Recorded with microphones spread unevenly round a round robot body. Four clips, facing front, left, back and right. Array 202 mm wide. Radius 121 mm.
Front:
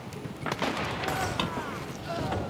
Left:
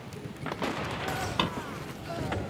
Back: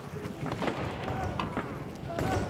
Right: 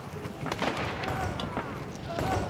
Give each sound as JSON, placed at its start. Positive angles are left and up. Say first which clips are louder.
{"t": 1.4, "sound": "a drawer", "louder": "left 7 dB, front 3 dB", "azimuth_deg": 95}